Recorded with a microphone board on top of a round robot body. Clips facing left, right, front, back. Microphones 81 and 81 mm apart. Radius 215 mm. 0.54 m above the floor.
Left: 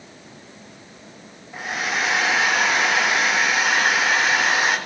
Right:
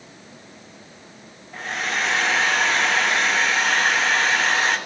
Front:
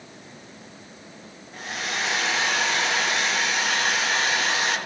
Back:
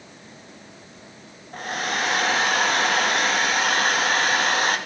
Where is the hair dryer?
170° left, 1.7 m.